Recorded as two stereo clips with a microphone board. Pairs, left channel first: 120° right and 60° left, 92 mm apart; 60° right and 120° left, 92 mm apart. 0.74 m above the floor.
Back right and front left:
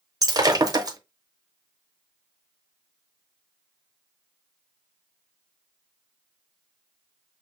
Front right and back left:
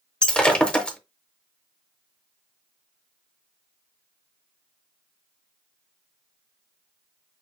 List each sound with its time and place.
0.2 s breaking glass: 15° left, 0.8 m